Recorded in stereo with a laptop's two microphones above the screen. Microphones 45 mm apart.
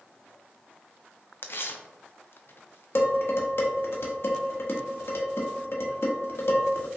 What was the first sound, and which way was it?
Tearing paper, 60° left (ahead or behind).